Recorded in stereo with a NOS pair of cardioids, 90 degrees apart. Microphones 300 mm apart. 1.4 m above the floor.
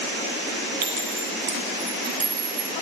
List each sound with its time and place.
0.8 s a clink: 65° right, 2.5 m